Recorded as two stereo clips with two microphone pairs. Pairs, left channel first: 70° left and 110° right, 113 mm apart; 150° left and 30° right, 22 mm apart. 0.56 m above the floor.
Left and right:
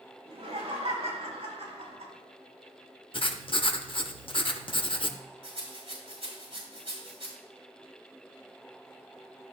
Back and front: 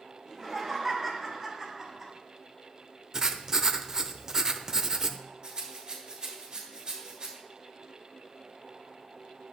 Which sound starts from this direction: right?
A rattle, at 5.4 s.